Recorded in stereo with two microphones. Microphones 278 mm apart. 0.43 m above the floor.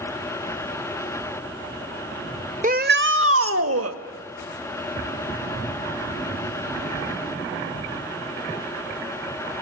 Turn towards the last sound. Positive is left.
turn(degrees=-65)  # may be behind; listen again after turning